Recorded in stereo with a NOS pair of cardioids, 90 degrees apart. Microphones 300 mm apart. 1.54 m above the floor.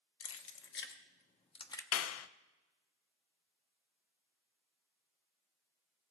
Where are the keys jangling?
55° left, 1.3 m; by 1.8 s 10° left, 0.8 m.